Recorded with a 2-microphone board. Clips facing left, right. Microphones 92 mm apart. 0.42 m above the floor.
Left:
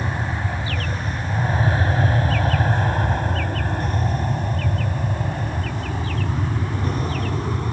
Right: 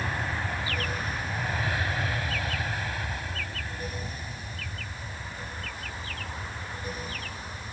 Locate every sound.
0.0 s an aircraft: 20° left (ahead or behind); by 7.7 s 70° left (ahead or behind)